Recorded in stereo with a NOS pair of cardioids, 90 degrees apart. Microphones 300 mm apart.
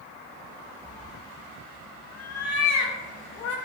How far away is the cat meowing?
About 1.6 m.